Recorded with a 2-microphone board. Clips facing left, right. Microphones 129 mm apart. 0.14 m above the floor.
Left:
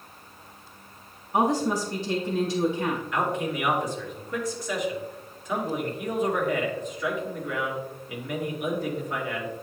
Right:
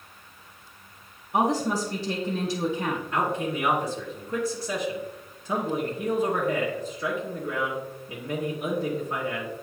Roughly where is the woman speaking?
Centre.